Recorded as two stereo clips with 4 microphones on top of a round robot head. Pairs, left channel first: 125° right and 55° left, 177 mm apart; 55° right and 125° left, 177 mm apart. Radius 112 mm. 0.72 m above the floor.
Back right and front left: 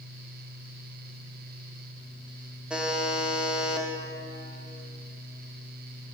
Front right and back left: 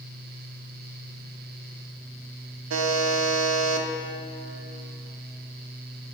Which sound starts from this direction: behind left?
A buzzer, at 2.7 s.